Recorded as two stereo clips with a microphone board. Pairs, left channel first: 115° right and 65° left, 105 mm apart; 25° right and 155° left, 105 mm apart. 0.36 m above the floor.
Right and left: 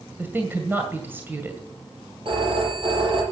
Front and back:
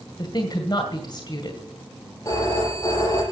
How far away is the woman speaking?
About 2.0 m.